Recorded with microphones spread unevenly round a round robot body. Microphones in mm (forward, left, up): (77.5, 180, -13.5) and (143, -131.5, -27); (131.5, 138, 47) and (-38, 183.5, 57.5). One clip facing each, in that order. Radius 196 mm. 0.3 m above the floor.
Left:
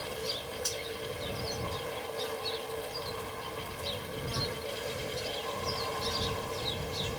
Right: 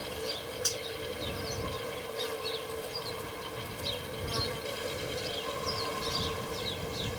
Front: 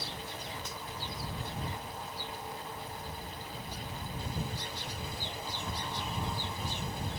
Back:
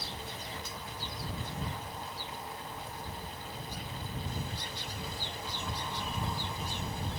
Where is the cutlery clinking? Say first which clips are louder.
Right 1 dB, front 1 dB; 70° right.